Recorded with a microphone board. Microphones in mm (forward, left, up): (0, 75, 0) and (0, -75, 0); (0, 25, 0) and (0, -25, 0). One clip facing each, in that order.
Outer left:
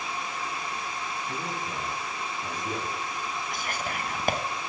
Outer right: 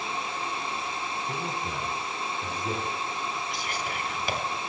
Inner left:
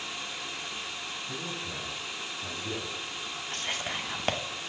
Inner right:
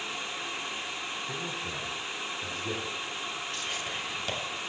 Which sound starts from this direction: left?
Whispering, at 3.5 s.